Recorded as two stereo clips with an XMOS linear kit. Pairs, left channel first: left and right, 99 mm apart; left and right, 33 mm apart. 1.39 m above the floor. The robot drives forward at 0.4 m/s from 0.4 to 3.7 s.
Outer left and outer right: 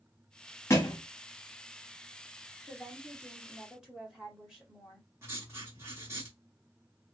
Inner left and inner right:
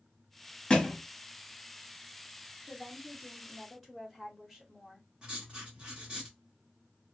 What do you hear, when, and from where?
0.7 s a thud: 25° left (ahead or behind), 1.0 m; by 1.0 s 30° left (ahead or behind), 0.9 m
2.7 s a woman speaking: 10° right (ahead or behind), 1.2 m; by 5.1 s 5° right (ahead or behind), 1.6 m
5.2 s writing: 25° right (ahead or behind), 1.5 m